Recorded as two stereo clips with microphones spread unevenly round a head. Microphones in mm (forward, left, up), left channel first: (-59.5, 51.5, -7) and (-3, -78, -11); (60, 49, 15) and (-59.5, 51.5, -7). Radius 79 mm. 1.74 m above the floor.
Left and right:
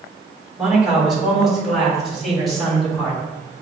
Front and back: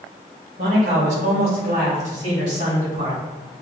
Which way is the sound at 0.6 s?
150° right.